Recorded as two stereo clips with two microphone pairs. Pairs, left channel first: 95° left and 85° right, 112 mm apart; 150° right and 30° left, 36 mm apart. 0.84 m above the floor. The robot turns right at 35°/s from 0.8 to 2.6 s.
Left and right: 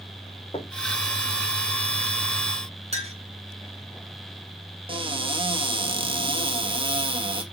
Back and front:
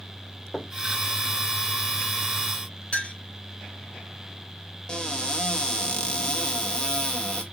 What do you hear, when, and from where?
0.5 s knocking: 115° left, 1.3 m
2.9 s a clink: 100° right, 2 m
4.9 s a cupboard door: 95° right, 1.1 m